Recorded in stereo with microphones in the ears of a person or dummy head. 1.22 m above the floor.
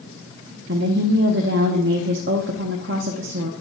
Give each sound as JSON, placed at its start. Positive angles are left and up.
{"t": 0.7, "sound": "a woman speaking", "side_deg": -60, "distance_m": 1.0}